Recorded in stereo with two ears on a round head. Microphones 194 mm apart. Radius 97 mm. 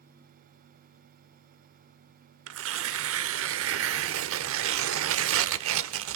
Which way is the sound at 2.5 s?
65° right (ahead or behind).